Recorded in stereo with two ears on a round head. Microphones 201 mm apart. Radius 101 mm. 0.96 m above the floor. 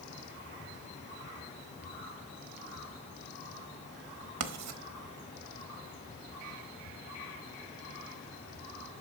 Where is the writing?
80° right, 0.9 m.